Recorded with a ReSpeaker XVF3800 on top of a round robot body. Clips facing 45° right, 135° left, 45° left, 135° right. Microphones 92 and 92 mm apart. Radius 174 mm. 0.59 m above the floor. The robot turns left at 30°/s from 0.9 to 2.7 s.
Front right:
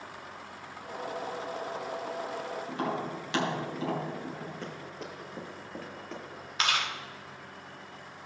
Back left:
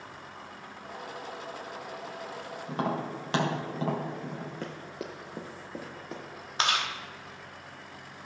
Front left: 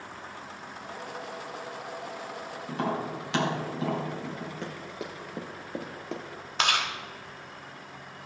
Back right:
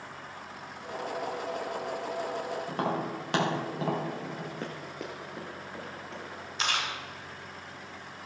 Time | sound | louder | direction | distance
2.7 | tapping | back left 3 dB, front left 3 dB | 175° right | 2.5 m
4.6 | running footsteps | back left 2 dB, front left 1 dB | 175° left | 0.6 m
6.6 | chewing | back left 1 dB, front left 4 dB | 75° left | 0.8 m